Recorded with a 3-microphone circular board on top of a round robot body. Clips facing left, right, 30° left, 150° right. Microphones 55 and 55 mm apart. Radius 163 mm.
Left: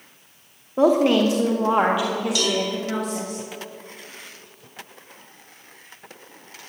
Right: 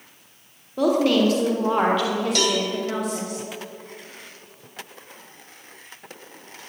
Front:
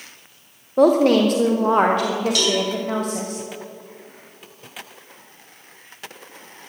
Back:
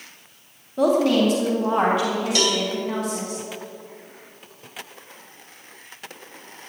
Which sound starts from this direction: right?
A cowbell, at 2.4 s.